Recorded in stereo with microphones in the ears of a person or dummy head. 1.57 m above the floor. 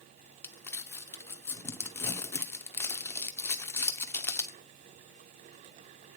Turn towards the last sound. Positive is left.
turn(degrees=15)  # may be behind; listen again after turning